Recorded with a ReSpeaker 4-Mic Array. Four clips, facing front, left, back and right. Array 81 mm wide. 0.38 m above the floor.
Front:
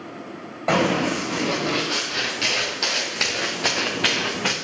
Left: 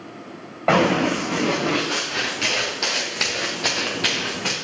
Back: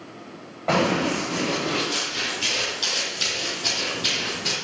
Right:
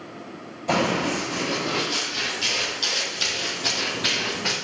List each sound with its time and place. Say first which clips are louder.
0.7 s running footsteps: left 5 dB, front 1 dB; 80° left, 4 m; by 4.5 s straight ahead, 2 m